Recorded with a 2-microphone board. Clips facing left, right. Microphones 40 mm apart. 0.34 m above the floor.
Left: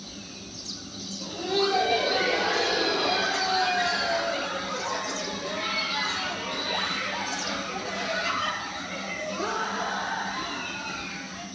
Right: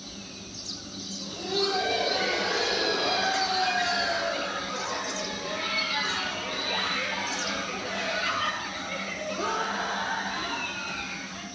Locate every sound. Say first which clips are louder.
1.2 s laughter: left 3 dB; 20° left (ahead or behind), 6.5 m; by 11.4 s 45° right (ahead or behind), 8 m